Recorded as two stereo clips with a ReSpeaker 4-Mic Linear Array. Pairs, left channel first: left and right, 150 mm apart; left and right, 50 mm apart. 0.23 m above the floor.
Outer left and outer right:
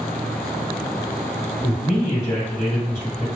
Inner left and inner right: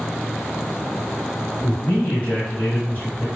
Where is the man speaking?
25° left (ahead or behind), 1.9 m.